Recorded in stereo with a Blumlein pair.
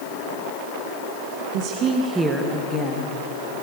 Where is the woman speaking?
45° right, 1.4 m; by 3.2 s 30° left, 2.0 m.